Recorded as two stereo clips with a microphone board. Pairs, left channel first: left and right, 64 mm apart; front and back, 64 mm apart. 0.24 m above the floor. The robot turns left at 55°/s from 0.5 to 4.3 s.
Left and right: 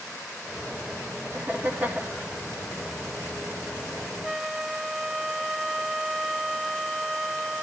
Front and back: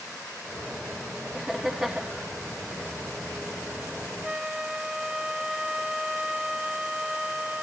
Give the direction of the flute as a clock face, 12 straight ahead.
7 o'clock.